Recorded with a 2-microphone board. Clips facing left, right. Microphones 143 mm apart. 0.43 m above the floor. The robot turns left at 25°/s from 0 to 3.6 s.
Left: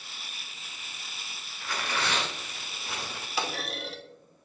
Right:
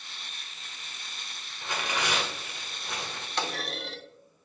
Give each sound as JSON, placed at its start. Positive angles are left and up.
{"t": 1.6, "sound": "tearing paper", "azimuth_deg": -150, "distance_m": 0.9}
{"t": 3.4, "sound": "a clunk", "side_deg": 5, "distance_m": 0.6}